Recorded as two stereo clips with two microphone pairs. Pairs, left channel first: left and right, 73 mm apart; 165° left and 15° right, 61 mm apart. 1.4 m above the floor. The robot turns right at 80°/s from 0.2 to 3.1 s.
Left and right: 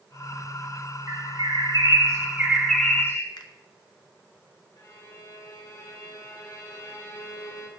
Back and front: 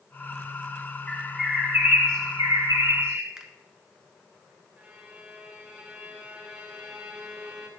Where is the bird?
130° right, 1.9 m; by 3.3 s 30° left, 1.9 m.